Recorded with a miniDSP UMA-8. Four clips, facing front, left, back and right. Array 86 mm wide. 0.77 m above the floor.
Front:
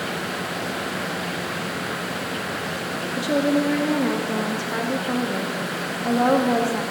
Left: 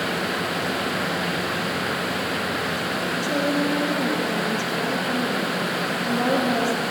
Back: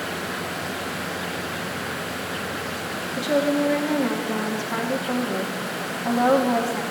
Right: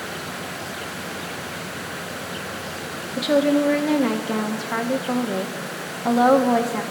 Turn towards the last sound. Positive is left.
turn(degrees=-85)